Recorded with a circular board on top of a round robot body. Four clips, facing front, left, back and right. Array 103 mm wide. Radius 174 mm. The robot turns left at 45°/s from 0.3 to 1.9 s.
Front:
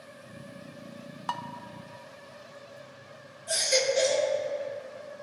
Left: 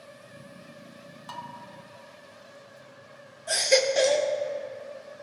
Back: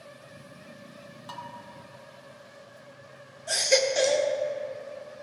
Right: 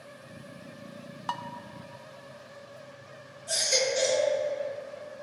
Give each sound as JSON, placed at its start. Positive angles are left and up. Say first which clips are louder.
{"t": 1.3, "sound": "dishes clattering", "louder": "right 5 dB, front 7 dB", "azimuth_deg": -40, "distance_m": 0.8}
{"t": 3.5, "sound": "a baby crying", "louder": "left 6 dB, back 3 dB", "azimuth_deg": 125, "distance_m": 1.5}